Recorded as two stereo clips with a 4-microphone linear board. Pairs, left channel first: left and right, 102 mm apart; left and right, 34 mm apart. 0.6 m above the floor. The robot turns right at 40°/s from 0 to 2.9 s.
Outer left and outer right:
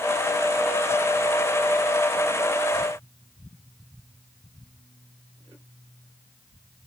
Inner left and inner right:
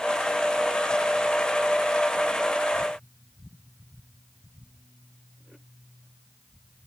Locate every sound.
Only background noise.